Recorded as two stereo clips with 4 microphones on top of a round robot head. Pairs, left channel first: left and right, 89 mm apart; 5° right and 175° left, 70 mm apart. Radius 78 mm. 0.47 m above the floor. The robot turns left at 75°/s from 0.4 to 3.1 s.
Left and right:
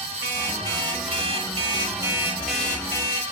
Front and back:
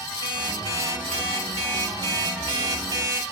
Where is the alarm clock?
15° right, 9 m; by 3.3 s 140° left, 9 m.